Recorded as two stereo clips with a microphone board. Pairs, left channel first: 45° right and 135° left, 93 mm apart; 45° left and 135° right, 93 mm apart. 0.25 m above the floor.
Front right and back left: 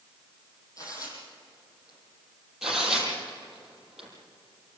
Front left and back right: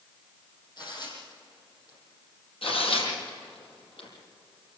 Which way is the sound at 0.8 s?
5° left.